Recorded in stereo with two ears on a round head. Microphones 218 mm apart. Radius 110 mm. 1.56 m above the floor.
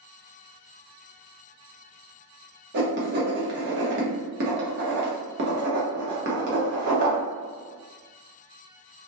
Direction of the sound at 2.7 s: 45° right (ahead or behind).